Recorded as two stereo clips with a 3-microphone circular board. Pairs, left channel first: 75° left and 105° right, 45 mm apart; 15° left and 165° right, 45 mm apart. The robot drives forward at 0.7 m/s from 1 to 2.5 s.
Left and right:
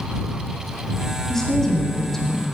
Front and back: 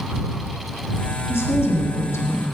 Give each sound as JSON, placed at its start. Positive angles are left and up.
{"t": 1.3, "sound": "a woman speaking", "azimuth_deg": -5, "distance_m": 1.7}